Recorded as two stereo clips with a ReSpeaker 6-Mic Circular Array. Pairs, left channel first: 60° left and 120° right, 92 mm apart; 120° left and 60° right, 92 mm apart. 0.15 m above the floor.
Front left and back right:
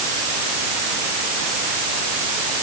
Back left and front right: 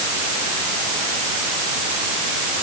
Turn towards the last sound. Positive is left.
No sound to turn to.